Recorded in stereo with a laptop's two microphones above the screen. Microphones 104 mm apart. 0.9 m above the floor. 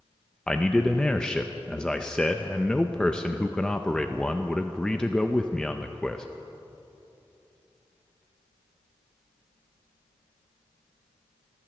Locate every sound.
0.5 s a man speaking: 10° left (ahead or behind), 0.6 m